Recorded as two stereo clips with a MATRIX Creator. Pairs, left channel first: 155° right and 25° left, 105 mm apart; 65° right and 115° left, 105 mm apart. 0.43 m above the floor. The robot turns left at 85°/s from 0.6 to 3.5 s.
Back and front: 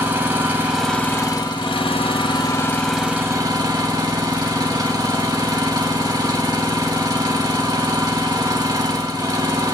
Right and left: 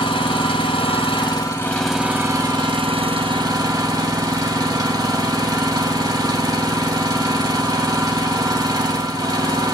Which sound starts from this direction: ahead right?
An engine running, at 0.0 s.